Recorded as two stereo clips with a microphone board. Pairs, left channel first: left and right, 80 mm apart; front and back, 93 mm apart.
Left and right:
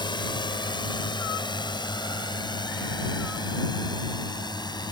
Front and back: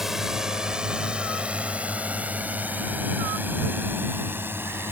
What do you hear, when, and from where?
0.0 s a drone: 95° left; by 4.9 s 115° left